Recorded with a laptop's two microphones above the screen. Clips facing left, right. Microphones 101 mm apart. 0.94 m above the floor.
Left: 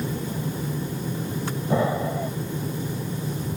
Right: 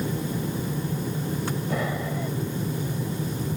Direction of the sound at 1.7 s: 30° left (ahead or behind).